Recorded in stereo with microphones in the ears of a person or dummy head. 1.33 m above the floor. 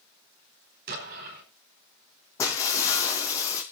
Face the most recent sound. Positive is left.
turn(degrees=20)  # may be behind; listen again after turning